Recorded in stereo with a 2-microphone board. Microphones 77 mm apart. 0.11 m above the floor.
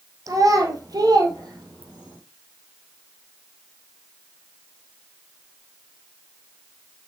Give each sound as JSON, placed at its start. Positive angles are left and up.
{"t": 0.3, "sound": "a child speaking", "side_deg": -50, "distance_m": 1.5}